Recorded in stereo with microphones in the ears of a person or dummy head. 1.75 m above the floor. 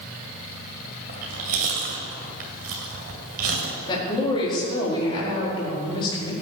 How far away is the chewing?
About 2.5 m.